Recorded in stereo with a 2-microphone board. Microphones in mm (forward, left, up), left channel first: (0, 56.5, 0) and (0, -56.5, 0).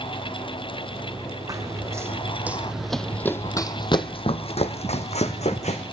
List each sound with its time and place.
1.5 s running footsteps: 30° right (ahead or behind), 1.4 m; by 5.8 s 80° left, 1.6 m